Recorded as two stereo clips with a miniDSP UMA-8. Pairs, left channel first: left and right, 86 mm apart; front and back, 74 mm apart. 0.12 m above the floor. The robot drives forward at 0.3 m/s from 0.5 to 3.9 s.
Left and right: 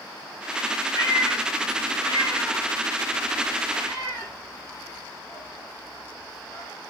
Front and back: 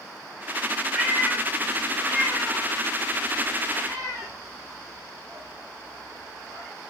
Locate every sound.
0.9 s a cat meowing: 105° left, 1.2 m; by 6.7 s 140° left, 1.6 m